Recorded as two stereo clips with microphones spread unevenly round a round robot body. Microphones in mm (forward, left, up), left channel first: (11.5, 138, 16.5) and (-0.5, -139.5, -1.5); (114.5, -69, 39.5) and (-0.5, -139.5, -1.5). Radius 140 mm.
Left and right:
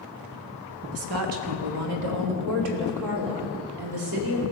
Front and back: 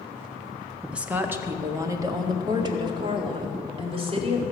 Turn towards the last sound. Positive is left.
turn(degrees=-110)